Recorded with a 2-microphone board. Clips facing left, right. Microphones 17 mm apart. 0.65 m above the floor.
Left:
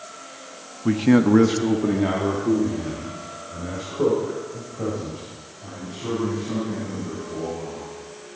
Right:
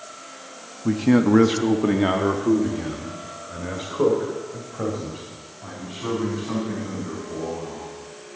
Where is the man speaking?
25° left (ahead or behind), 0.5 m; by 7.9 s 70° right (ahead or behind), 4.5 m.